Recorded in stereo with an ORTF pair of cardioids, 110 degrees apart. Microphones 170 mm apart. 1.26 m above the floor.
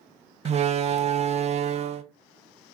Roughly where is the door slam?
Ahead right.